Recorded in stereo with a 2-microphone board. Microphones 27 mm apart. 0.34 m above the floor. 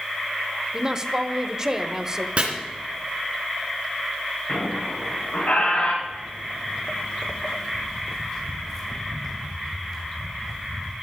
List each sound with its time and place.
0.7 s a woman speaking: 25° right (ahead or behind), 0.9 m
2.4 s chopping: 45° right (ahead or behind), 3.5 m
4.5 s a squeak: 85° left, 7 m
6.0 s footsteps: 70° left (ahead or behind), 1.2 m; by 10.9 s 5° left (ahead or behind), 3.5 m